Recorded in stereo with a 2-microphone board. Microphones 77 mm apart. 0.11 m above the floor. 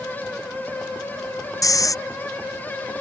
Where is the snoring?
45° left (ahead or behind).